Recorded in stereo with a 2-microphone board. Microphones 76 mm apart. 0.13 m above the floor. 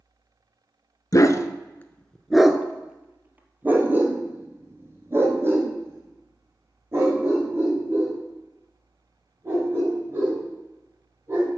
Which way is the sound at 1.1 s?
50° left (ahead or behind).